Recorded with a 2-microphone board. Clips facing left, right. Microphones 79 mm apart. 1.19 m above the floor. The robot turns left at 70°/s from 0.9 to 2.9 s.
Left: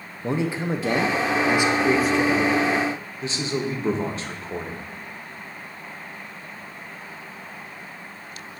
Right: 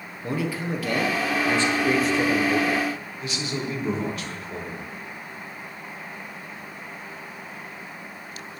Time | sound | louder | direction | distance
0.2 | a man speaking | left 3 dB | 25° left (ahead or behind) | 0.6 m
3.2 | a man speaking | left 4 dB | 30° left (ahead or behind) | 0.9 m